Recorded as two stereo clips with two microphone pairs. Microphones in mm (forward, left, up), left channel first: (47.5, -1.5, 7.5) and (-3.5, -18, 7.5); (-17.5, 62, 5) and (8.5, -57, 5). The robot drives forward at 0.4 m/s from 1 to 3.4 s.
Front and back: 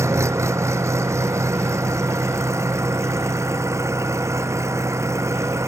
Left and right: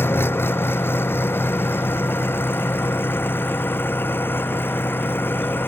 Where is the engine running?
175° left.